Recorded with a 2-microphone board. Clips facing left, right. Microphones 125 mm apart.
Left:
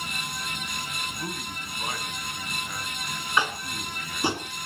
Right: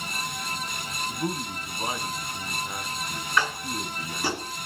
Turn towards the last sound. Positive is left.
turn(degrees=20)  # may be behind; listen again after turning